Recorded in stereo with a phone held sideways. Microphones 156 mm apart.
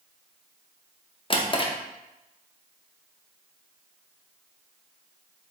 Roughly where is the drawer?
Left.